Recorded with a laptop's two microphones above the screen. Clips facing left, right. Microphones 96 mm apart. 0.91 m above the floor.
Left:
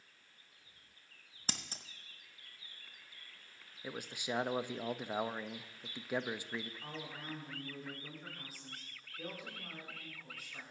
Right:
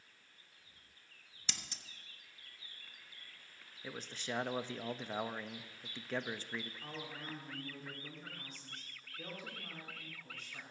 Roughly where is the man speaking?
Centre.